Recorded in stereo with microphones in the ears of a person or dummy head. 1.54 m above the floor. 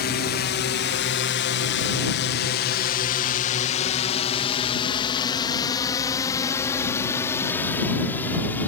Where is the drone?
50° left (ahead or behind); by 8.7 s 10° left (ahead or behind).